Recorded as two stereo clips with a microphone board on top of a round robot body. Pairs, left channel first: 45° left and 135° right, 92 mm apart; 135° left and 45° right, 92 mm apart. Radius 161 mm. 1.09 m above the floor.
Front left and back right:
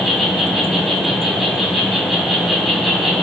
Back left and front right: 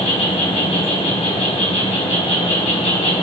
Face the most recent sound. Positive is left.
turn(degrees=135)